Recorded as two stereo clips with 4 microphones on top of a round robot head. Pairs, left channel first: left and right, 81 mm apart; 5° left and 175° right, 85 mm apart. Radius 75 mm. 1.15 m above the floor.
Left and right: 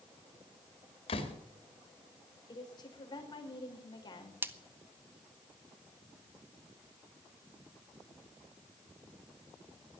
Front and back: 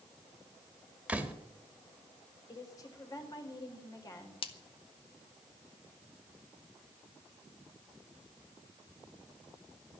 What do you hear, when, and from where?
1.1 s a door slam: 105° left, 2 m
2.5 s a woman speaking: 50° left, 4 m
4.4 s a splash: 25° right, 1.0 m